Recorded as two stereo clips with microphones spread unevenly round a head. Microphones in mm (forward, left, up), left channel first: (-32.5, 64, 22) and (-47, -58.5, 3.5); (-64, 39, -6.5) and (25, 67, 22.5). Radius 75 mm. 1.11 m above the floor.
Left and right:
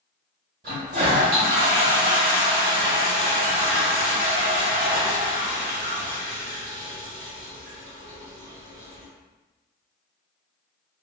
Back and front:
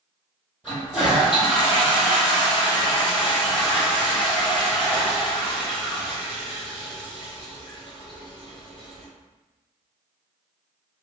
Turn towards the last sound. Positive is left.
turn(degrees=-55)